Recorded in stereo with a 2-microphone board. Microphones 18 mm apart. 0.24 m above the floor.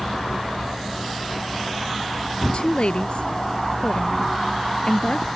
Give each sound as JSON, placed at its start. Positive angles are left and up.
{"t": 2.5, "sound": "a woman speaking", "side_deg": 65}